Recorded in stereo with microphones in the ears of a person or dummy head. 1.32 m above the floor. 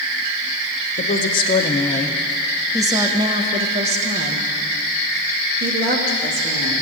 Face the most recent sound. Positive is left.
turn(degrees=-60)  # may be behind; listen again after turning